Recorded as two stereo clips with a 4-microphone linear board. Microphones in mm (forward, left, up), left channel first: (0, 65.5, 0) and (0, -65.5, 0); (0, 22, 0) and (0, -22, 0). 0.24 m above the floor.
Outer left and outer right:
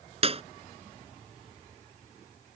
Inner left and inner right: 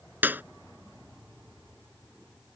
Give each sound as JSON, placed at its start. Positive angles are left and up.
{"t": 0.2, "sound": "a clap", "side_deg": -45}